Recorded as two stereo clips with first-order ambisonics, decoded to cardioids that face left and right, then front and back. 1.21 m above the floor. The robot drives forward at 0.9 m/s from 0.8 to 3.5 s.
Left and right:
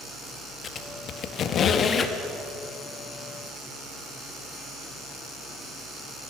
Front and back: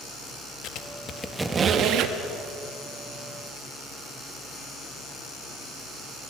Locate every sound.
0.6 s a squeak: 35° left, 0.7 m; by 2.2 s 155° left, 1.0 m